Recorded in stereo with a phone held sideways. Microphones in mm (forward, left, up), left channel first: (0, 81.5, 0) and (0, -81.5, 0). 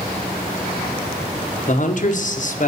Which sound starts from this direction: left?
A man speaking, at 1.7 s.